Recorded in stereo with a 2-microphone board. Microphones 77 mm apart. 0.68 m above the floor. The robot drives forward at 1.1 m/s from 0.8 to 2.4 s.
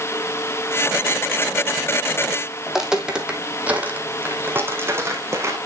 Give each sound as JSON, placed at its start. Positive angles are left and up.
{"t": 2.7, "sound": "footsteps", "side_deg": -5, "distance_m": 2.0}